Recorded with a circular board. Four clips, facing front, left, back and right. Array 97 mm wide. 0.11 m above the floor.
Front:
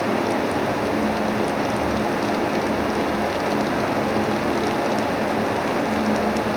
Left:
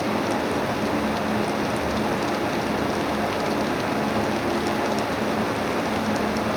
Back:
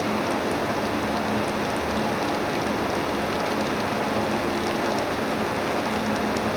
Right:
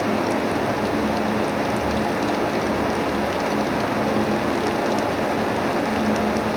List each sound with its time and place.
Only background noise.